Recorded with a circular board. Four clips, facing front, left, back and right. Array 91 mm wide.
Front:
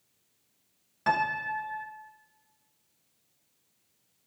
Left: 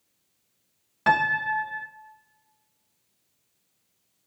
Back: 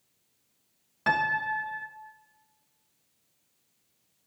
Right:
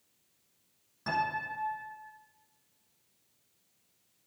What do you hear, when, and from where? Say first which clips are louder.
1.1 s a piano: left 10 dB, back 1 dB; 100° left, 0.6 m